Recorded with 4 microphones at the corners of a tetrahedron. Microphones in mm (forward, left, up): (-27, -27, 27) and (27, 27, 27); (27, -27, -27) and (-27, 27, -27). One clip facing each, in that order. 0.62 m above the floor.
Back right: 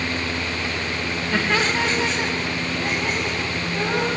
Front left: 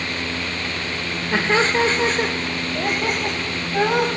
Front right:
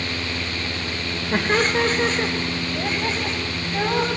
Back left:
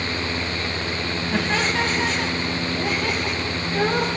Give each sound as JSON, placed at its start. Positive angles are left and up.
{"t": 1.3, "sound": "laughter", "azimuth_deg": -15, "distance_m": 2.5}